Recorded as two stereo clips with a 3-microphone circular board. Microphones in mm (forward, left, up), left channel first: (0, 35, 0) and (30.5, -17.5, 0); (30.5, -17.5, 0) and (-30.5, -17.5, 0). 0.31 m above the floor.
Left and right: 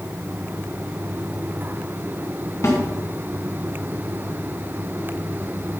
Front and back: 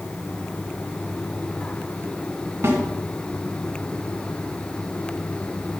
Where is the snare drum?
140° left, 2.5 m.